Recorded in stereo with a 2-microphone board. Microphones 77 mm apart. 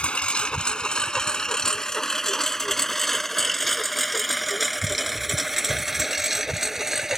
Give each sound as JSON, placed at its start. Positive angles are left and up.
{"t": 0.0, "sound": "a lawn mower", "side_deg": 15}